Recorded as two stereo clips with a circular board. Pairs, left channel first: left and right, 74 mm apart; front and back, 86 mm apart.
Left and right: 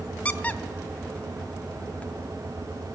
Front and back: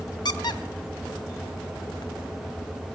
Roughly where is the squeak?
Ahead.